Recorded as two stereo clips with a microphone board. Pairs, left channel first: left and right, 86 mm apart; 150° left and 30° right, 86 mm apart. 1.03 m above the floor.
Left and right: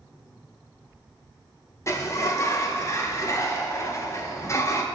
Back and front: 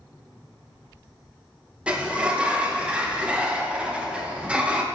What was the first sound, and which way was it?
A sliding door, 45° left.